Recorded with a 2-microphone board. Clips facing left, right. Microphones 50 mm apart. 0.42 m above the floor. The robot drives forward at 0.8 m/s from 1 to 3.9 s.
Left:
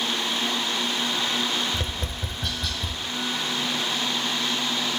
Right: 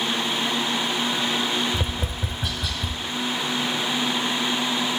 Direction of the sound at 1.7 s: 10° right (ahead or behind).